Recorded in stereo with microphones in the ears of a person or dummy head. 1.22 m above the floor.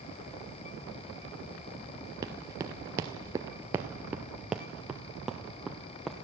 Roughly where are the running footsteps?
Centre.